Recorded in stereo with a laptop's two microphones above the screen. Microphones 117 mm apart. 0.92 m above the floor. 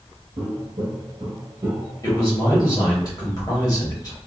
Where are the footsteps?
45° right (ahead or behind), 1.2 m; by 3.0 s 15° right (ahead or behind), 1.9 m.